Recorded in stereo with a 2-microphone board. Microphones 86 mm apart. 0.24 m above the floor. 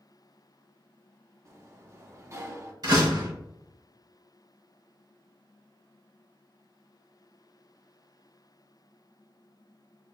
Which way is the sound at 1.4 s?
35° right (ahead or behind).